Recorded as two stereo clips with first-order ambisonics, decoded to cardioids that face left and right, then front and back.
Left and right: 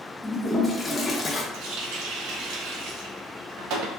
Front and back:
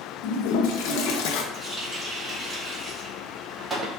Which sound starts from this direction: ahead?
A toilet flushing, at 0.2 s.